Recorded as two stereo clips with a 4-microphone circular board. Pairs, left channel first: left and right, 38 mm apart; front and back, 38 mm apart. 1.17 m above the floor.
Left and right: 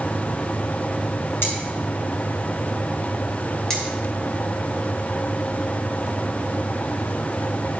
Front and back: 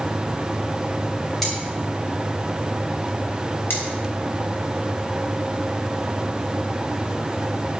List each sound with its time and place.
1.4 s cutlery clinking: 85° left, 6 m
3.7 s cutlery clinking: 10° left, 3.5 m